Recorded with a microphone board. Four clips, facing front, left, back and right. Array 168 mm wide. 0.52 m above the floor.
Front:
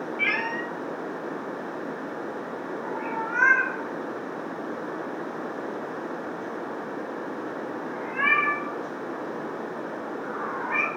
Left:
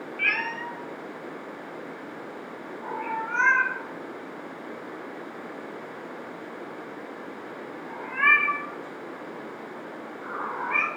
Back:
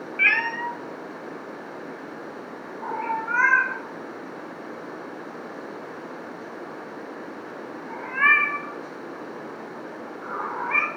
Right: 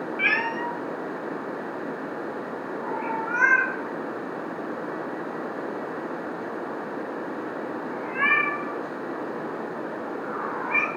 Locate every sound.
0.2 s a cat meowing: 145° right, 0.8 m; by 10.9 s 165° left, 6.5 m